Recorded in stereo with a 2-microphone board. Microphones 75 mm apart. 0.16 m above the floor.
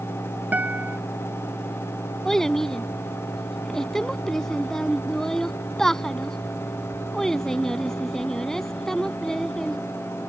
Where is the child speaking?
5° left (ahead or behind).